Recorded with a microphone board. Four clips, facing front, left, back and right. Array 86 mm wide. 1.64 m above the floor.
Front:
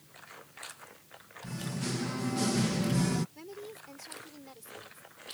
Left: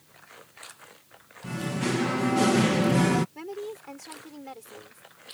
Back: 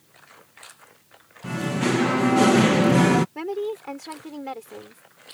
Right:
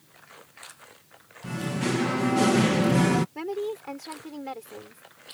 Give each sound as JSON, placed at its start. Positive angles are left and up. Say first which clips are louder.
{"t": 1.4, "sound": "singing", "louder": "right 1 dB, back 13 dB", "azimuth_deg": 180}
{"t": 3.4, "sound": "a woman speaking", "louder": "right 6 dB, back 17 dB", "azimuth_deg": -160}